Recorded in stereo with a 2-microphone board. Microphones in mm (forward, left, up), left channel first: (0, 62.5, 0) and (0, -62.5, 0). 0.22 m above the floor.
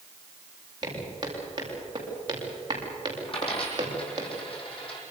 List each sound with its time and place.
0.8 s footsteps: 35° right (ahead or behind), 8 m
3.3 s a dropped coin: 45° left (ahead or behind), 5 m